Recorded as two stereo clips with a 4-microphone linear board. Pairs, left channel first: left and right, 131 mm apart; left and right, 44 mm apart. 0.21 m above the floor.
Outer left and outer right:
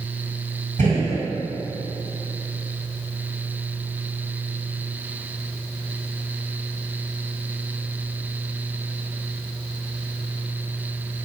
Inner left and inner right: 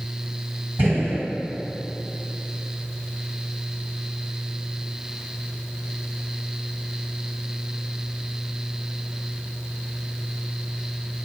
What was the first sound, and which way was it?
A gunshot, 75° right (ahead or behind).